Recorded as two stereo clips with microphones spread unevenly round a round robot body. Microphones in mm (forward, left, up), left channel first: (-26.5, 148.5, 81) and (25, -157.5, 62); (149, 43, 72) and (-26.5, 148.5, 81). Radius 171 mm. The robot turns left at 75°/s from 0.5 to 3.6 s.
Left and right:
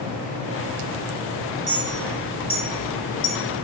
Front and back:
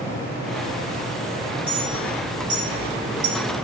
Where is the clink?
110° right, 3.5 m; by 3.4 s 120° left, 3.5 m.